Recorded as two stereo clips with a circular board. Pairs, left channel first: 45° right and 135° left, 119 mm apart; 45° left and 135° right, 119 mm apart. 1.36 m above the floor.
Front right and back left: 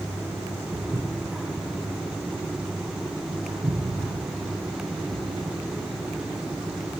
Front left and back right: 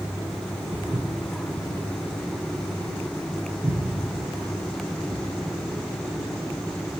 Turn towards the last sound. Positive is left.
turn(degrees=-155)